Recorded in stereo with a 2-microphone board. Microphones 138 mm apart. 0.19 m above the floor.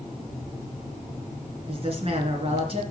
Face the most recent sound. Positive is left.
turn(degrees=-45)  # may be behind; listen again after turning